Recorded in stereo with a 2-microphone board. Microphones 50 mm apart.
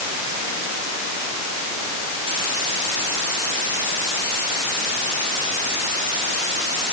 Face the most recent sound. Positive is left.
No sound to turn to.